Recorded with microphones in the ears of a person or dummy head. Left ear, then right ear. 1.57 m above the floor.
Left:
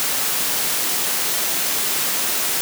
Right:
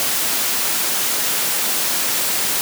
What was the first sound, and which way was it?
Only background noise.